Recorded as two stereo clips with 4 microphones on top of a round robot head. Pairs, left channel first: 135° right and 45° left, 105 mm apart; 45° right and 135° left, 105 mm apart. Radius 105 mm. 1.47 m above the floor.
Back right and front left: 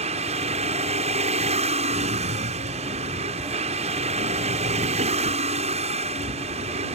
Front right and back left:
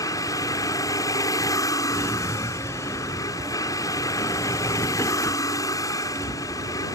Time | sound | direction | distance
0.0 | a vehicle | 20° left | ?
1.9 | a drawer | 25° left | ?